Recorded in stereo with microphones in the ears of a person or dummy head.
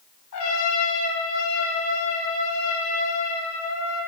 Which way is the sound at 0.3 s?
70° left (ahead or behind).